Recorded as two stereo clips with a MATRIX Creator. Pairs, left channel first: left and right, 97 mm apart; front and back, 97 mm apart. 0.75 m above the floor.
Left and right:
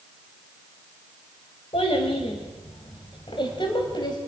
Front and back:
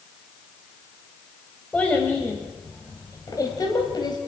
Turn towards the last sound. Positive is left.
turn(degrees=45)